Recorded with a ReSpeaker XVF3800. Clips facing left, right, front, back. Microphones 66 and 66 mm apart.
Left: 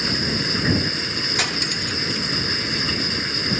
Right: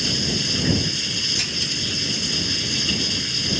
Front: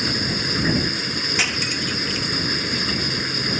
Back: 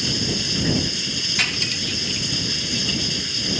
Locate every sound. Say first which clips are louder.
0.0 s running water: left 2 dB, front 2 dB; 40° left
1.4 s cutlery clinking: left 5 dB, even; 75° left